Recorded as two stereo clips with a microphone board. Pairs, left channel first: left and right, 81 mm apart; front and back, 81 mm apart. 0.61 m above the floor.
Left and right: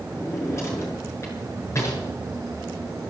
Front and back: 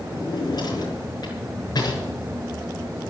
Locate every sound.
0.1 s a drawer: 35° left, 6 m